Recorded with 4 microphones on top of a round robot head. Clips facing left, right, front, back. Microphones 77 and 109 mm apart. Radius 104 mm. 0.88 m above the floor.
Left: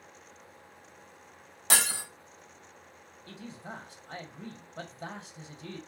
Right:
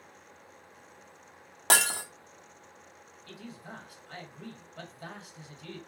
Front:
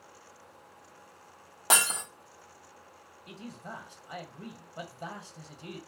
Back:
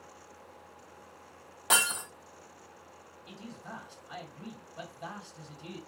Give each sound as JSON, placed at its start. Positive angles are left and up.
{"t": 1.7, "sound": "breaking glass", "azimuth_deg": -60, "distance_m": 1.0}
{"t": 3.3, "sound": "a man speaking", "azimuth_deg": 40, "distance_m": 1.3}